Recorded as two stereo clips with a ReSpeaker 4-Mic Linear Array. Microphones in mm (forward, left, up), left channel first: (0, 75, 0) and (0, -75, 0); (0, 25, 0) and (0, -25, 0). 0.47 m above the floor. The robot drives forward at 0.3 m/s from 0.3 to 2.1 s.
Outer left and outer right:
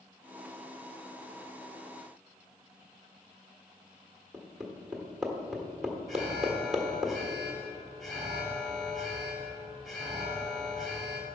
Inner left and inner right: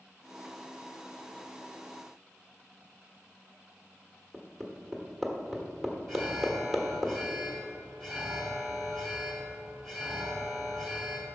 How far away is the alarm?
About 1.9 m.